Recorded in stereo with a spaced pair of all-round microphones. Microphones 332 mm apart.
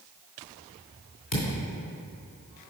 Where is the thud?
70° left (ahead or behind), 3 m.